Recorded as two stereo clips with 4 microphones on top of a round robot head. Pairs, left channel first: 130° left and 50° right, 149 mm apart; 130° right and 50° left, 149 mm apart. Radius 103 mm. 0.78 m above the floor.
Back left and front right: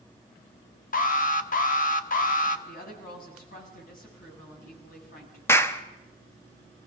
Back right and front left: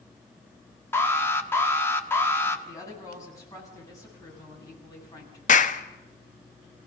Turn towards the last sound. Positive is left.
turn(degrees=-155)